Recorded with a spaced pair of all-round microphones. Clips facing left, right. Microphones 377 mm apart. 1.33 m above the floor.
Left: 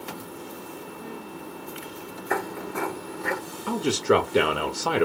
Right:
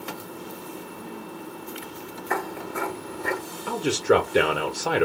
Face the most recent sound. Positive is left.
turn(degrees=5)  # may be behind; listen again after turning